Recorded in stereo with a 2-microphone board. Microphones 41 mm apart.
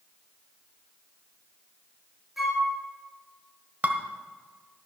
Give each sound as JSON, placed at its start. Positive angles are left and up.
{"t": 2.4, "sound": "a flute", "side_deg": -5, "distance_m": 2.5}
{"t": 3.8, "sound": "dishes clattering", "side_deg": -45, "distance_m": 1.3}